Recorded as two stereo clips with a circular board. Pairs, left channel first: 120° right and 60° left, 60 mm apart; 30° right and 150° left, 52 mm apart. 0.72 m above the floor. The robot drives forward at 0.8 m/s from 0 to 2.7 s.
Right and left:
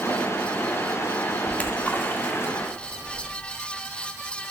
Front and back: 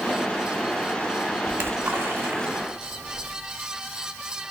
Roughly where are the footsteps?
No footsteps in this recording.